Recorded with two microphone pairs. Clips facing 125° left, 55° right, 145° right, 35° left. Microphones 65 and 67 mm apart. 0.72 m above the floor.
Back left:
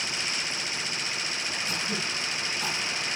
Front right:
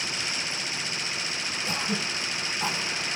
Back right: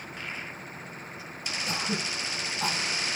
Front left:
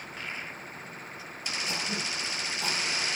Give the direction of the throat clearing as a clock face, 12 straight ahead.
3 o'clock.